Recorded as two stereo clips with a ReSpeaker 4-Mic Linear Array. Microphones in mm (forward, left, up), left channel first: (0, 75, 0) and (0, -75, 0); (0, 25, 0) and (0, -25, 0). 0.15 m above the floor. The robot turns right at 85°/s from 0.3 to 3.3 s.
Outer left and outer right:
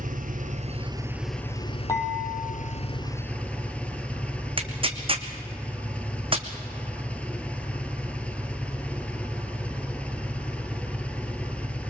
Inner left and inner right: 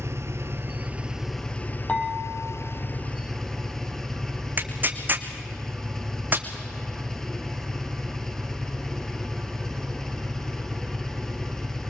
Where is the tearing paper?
35° right (ahead or behind), 1.5 m.